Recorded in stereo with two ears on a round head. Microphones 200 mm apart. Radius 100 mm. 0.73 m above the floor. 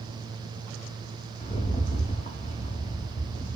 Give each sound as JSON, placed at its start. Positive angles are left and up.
{"t": 1.4, "sound": "a rattle", "side_deg": 25, "distance_m": 0.6}